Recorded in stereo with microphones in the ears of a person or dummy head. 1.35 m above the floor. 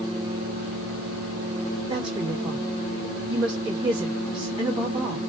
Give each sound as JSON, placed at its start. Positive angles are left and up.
{"t": 1.9, "sound": "a woman speaking", "side_deg": -20, "distance_m": 2.0}